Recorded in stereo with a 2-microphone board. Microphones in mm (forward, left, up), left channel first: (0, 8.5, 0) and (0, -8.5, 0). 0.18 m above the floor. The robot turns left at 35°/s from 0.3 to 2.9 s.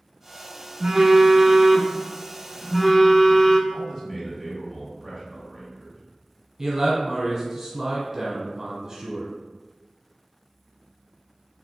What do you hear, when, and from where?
0.8 s a phone buzzing: 130° right, 0.6 m; by 3.6 s 155° left, 0.6 m
3.7 s a man speaking: 30° left (ahead or behind), 2.0 m
6.6 s a man speaking: 30° right (ahead or behind), 1.2 m